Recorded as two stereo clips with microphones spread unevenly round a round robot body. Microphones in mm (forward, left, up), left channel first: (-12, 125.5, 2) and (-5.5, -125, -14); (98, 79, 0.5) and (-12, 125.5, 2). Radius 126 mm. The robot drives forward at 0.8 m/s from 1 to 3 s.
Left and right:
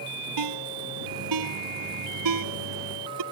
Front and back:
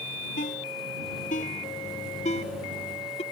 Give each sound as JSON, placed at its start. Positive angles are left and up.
{"t": 0.4, "sound": "a ringtone", "azimuth_deg": -85}